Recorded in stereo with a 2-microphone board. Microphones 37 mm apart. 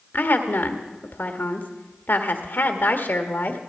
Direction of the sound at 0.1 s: 65° left (ahead or behind).